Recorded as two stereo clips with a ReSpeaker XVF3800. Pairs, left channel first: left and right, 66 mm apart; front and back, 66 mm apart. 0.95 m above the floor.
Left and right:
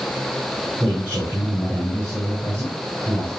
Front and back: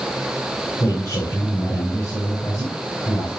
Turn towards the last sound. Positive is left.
turn(degrees=-30)